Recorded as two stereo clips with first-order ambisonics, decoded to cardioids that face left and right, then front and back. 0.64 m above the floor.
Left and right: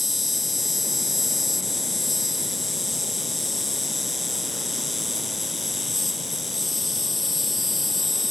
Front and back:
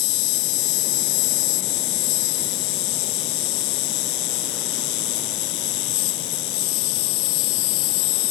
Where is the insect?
5° left.